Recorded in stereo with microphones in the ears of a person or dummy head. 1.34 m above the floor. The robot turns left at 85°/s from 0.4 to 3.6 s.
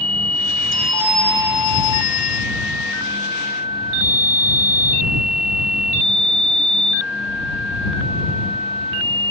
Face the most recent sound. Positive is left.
turn(degrees=-30)